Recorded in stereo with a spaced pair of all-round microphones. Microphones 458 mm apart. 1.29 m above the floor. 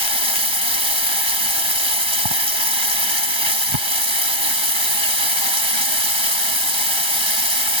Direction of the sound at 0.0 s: 80° right.